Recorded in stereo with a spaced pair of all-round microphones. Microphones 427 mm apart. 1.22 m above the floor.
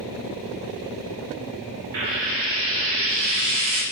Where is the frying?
75° right (ahead or behind), 0.5 m.